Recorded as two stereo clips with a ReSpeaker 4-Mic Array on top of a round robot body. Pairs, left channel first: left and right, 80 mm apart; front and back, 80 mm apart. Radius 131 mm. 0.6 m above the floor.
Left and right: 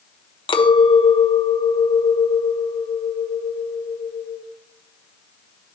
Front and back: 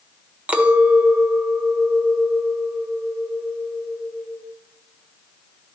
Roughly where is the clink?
Left.